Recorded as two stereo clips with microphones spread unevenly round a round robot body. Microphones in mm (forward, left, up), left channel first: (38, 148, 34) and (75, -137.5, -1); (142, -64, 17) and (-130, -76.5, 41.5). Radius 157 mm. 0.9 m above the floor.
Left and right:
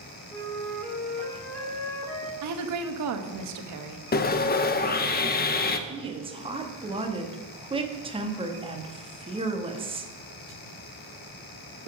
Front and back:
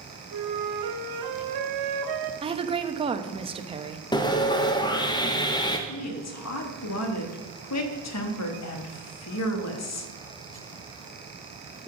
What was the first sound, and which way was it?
A flute, straight behind.